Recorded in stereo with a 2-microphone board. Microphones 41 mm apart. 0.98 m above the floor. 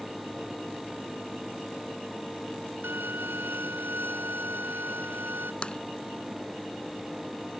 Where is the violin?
70° right (ahead or behind).